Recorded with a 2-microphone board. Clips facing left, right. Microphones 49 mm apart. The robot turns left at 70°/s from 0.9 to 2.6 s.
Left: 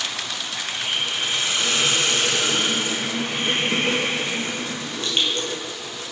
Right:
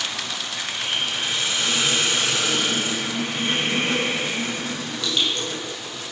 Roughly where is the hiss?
Behind.